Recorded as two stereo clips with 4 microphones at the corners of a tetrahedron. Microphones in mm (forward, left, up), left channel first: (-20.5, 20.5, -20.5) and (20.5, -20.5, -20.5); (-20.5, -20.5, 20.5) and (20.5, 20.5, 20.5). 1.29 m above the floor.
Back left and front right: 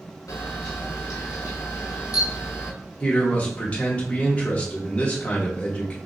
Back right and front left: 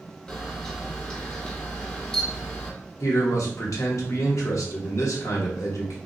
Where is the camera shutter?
145° left, 0.9 m.